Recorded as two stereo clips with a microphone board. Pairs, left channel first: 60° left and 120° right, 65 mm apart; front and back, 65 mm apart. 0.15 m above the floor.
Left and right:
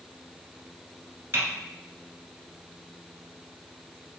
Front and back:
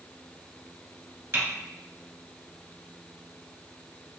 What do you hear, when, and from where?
1.3 s typing on a keyboard: 155° right, 1.6 m